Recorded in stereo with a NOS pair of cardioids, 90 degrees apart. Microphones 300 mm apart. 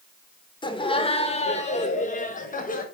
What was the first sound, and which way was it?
Laughter, 15° left.